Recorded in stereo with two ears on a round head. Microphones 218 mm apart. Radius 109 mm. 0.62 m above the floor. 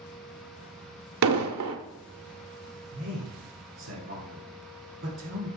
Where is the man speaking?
55° right (ahead or behind), 1.7 m.